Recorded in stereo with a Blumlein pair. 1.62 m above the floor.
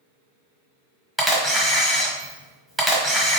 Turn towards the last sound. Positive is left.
turn(degrees=-5)